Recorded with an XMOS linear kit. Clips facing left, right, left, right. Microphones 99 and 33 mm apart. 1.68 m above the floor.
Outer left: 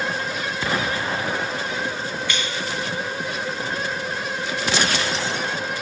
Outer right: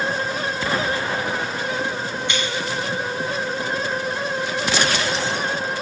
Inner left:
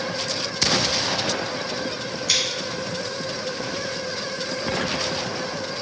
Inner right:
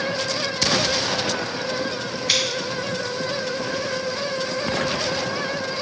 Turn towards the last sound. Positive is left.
turn(degrees=-20)  # may be behind; listen again after turning